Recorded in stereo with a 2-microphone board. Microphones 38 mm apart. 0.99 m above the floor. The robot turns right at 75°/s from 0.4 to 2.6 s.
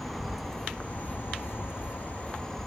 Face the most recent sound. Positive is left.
turn(degrees=170)